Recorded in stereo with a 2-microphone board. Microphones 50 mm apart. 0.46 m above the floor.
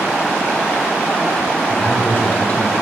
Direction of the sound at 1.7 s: 45° left (ahead or behind).